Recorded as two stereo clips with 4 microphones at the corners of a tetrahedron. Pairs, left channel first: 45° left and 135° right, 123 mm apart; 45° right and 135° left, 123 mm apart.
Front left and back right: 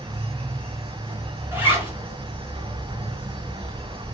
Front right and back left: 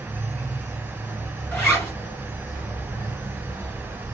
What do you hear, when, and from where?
0.0 s an insect: 115° right, 1.0 m
1.5 s a zipper: 95° right, 1.6 m